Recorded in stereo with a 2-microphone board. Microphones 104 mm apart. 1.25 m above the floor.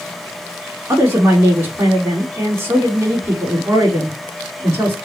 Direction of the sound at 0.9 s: 30° right (ahead or behind).